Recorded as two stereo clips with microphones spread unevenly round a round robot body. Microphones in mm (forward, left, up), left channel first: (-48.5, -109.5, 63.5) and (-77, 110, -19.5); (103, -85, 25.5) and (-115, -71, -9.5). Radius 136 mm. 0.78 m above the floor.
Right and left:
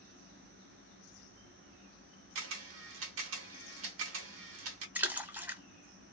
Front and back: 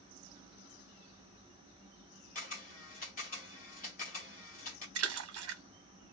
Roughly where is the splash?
Behind.